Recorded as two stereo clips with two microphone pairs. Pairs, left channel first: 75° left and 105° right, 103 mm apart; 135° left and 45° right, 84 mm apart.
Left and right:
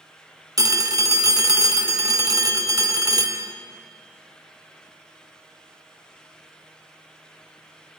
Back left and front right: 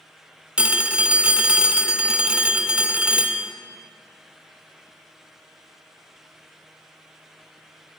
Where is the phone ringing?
115° right, 0.8 m.